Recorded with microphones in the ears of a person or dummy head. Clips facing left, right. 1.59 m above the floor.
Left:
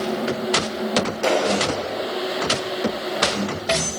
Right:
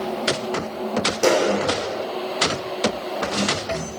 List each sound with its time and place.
1.2 s a clap: 50° right (ahead or behind), 4.5 m